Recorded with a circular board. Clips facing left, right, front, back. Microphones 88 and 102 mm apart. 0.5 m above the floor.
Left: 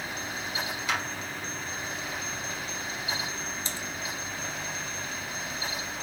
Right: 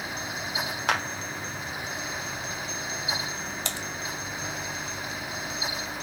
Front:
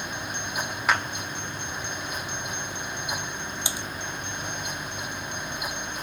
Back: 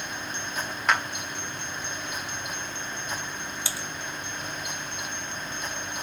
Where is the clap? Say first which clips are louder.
Right 5 dB, even; 85° right, 1.6 m.